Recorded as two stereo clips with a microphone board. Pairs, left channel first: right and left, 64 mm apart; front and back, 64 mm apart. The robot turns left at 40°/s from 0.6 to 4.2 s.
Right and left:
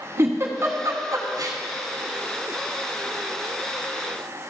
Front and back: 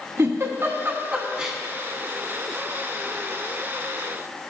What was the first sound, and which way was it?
A giggle, 135° left.